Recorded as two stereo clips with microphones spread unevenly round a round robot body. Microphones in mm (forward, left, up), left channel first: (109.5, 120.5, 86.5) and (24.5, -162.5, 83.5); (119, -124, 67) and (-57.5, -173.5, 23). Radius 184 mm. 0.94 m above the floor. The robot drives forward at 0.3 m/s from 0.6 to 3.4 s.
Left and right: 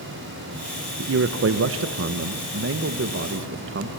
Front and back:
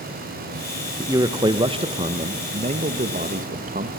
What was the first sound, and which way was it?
A man speaking, 115° right.